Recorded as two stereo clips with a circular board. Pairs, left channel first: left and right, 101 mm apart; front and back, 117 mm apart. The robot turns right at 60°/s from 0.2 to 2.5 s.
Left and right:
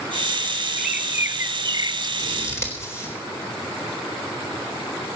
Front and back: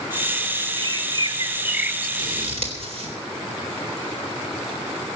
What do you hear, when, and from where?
0.8 s a bird: straight behind, 1.0 m; by 2.1 s 100° right, 1.0 m
2.2 s scissors: 135° left, 4 m; by 3.1 s 150° left, 4 m